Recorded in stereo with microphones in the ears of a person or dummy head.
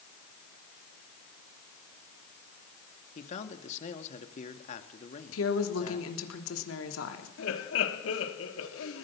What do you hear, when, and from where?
3.1 s a man speaking: 40° left (ahead or behind), 2 m
5.3 s a woman speaking: 80° left, 3 m
7.4 s laughter: 80° left, 3 m